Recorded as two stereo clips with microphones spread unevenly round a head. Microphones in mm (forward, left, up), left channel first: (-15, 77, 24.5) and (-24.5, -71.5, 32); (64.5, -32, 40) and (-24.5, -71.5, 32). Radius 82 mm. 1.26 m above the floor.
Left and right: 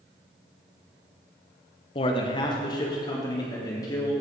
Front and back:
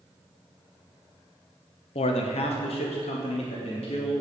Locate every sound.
1.9 s a man speaking: 35° left, 1.1 m; by 4.1 s 20° left, 3.5 m